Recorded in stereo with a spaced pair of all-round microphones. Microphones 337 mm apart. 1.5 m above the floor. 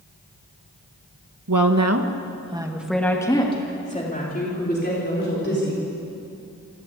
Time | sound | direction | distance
1.5 | a woman speaking | 70° right (ahead or behind) | 1.7 m